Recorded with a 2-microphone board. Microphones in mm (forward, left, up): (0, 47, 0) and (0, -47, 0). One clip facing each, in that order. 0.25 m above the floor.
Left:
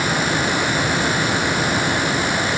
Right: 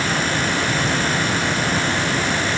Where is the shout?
No shout in this recording.